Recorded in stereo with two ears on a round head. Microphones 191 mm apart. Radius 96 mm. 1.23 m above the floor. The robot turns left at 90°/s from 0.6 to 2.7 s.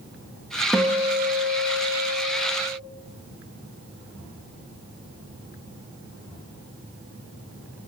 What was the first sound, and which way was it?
A guitar, straight ahead.